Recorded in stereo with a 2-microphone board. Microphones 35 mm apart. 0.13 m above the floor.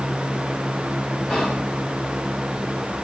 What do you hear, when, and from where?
1.3 s whispering: 25° left (ahead or behind), 5 m